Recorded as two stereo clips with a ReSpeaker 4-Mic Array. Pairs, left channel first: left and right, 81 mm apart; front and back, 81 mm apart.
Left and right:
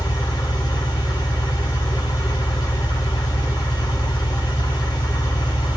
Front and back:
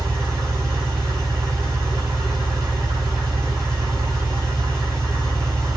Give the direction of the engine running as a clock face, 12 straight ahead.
8 o'clock.